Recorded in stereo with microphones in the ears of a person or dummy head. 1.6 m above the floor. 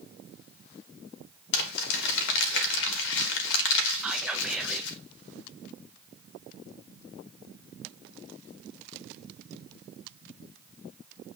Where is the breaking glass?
No breaking glass in this recording.